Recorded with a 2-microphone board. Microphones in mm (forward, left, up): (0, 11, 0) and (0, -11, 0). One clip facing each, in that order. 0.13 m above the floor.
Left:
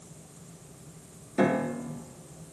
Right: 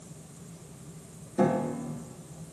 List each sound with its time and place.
1.4 s a piano: 50° left (ahead or behind), 1.1 m